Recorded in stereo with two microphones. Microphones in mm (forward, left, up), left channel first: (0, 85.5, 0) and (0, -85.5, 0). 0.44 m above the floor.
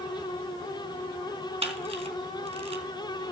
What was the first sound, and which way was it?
A camera shutter, 35° right (ahead or behind).